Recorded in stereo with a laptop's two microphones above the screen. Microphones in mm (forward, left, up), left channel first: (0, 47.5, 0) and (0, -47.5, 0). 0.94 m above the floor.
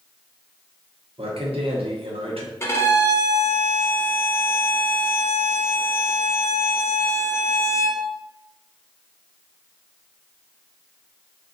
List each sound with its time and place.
1.2 s a man speaking: 80° right, 1.0 m
2.6 s a violin: 25° left (ahead or behind), 0.6 m